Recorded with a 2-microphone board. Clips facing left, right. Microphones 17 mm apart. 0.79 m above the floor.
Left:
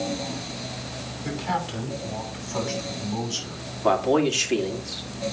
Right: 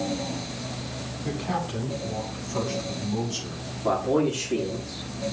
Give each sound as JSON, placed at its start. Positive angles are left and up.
{"t": 1.2, "sound": "a man speaking", "side_deg": 30, "distance_m": 6.0}
{"t": 3.8, "sound": "a man speaking", "side_deg": 60, "distance_m": 2.0}